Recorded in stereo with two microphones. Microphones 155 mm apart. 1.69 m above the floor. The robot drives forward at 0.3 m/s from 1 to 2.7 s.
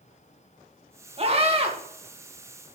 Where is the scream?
40° right (ahead or behind), 2.5 m; by 1.7 s 35° right (ahead or behind), 2.5 m.